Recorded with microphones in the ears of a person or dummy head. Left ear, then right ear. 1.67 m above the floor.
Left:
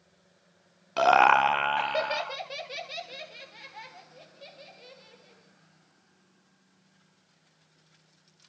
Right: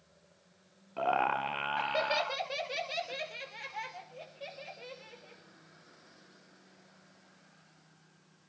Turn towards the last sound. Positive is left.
turn(degrees=-25)  # may be behind; listen again after turning